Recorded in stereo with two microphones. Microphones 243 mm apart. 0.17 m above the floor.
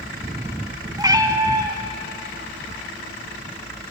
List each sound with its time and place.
1.0 s a cat meowing: 15° right (ahead or behind), 0.6 m